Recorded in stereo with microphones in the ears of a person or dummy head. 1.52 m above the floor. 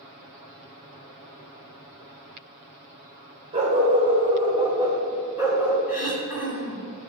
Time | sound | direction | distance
3.5 | a dog barking | 35° right (ahead or behind) | 2 m
5.9 | throat clearing | 10° right (ahead or behind) | 1.4 m